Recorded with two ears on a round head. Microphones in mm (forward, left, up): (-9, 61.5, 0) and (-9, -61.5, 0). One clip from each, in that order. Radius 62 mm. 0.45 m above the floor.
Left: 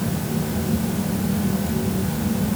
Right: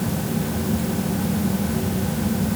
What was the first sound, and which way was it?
Only background noise.